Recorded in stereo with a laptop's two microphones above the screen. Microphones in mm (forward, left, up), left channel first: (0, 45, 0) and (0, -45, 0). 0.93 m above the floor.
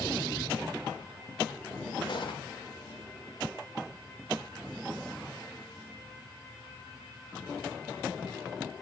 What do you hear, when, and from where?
2.1 s a gunshot: 60° left (ahead or behind), 1.4 m